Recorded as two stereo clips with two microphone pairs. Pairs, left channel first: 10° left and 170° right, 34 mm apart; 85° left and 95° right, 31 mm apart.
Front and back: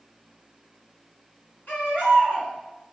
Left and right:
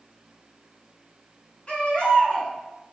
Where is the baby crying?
20° left, 4.5 m.